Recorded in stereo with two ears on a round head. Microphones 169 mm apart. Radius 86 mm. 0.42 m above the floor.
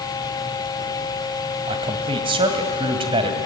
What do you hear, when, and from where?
1.7 s a man speaking: 30° right (ahead or behind), 2 m